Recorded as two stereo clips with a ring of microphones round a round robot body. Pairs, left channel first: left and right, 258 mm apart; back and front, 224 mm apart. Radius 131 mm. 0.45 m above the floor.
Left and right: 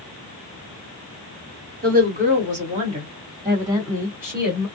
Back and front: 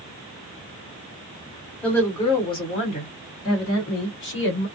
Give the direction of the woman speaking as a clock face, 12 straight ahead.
3 o'clock.